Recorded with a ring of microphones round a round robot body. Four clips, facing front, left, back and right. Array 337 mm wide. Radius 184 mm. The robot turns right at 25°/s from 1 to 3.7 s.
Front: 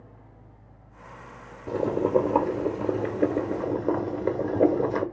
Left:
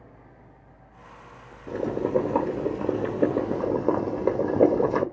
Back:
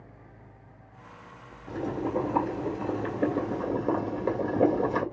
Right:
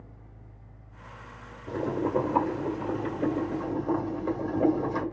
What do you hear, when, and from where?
1.7 s boiling: 20° left, 2.5 m; by 5.0 s 75° left, 2.5 m